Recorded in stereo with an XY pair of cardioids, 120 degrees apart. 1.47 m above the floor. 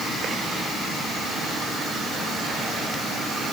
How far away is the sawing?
I don't hear sawing.